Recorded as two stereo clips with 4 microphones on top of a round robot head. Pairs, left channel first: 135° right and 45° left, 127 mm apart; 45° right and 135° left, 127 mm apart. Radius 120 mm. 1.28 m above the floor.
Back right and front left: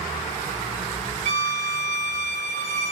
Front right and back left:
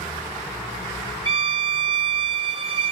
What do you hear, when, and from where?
1.2 s a violin: 80° left, 1.0 m